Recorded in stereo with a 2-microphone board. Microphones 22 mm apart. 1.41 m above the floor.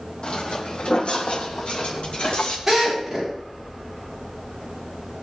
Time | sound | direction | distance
0.2 | footsteps | 60° left (ahead or behind) | 3 m
2.7 | a drill | 15° right (ahead or behind) | 8.5 m